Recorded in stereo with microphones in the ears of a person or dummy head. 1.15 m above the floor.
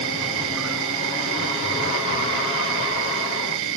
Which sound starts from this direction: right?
An insect, at 0.0 s.